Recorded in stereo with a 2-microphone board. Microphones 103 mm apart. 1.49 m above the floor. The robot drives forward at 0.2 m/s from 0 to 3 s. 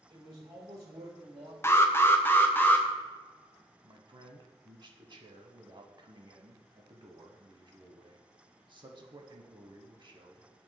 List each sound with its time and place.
0.1 s a man speaking: 65° right (ahead or behind), 2 m; by 1.5 s 75° right (ahead or behind), 2 m
1.6 s an alarm: 25° left (ahead or behind), 0.6 m; by 2.9 s 20° left (ahead or behind), 0.7 m
3.8 s a man speaking: 50° right (ahead or behind), 0.9 m